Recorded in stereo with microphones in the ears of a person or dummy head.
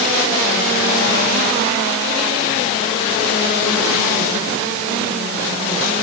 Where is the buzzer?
No buzzer in this recording.